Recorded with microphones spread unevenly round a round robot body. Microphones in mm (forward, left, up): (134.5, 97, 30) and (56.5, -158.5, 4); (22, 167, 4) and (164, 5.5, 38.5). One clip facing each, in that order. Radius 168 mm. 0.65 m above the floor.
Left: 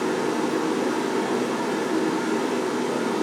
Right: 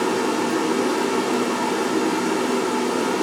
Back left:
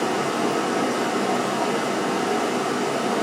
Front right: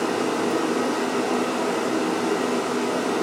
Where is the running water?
125° right, 1.2 m.